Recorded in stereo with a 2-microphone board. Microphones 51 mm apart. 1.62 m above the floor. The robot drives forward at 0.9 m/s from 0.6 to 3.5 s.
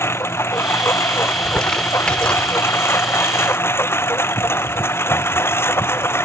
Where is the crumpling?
15° left (ahead or behind).